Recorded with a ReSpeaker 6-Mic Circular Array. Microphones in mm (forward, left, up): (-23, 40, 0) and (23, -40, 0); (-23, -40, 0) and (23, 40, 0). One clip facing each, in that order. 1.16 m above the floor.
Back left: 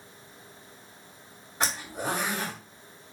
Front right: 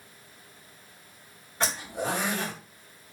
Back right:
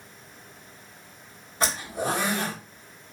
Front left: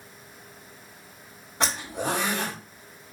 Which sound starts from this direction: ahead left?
A zipper, at 1.6 s.